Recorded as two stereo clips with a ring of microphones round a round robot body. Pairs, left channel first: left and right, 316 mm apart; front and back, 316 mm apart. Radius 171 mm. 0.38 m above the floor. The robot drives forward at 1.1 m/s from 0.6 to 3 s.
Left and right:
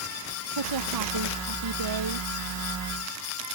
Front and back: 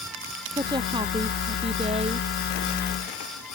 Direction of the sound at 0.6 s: 105° right.